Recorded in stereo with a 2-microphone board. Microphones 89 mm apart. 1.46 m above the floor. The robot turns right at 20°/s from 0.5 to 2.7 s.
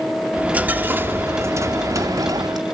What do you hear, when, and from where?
0.3 s a dropped coin: 160° right, 1.5 m; by 2.6 s 120° right, 1.5 m